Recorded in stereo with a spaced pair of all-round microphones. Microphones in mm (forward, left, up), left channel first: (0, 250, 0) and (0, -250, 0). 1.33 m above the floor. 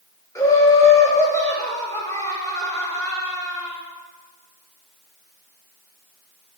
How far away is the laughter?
About 6 m.